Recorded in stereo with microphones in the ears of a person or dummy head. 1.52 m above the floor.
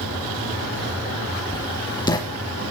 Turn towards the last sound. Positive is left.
turn(degrees=20)  # may be behind; listen again after turning